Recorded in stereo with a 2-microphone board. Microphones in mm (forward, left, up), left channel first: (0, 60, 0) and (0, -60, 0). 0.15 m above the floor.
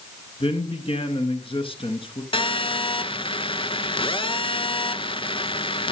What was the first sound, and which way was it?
A man speaking, 50° left (ahead or behind).